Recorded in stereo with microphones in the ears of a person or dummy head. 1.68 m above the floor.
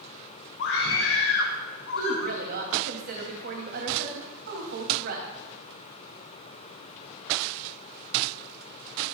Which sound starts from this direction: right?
A woman speaking, at 1.9 s.